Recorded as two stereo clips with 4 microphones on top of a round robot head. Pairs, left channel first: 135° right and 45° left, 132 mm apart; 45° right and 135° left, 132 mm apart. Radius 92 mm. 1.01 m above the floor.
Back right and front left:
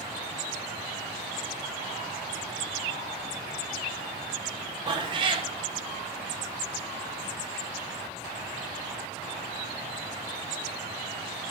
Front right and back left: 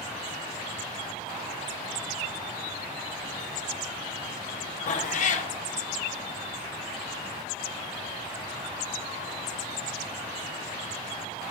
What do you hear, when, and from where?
4.9 s a cat meowing: 10° right, 0.8 m